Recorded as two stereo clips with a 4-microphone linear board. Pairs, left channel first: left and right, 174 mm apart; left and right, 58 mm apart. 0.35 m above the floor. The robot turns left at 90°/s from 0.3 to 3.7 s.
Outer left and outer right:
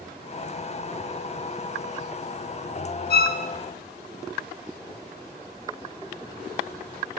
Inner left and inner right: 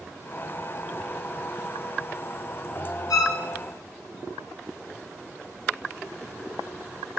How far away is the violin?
About 0.6 m.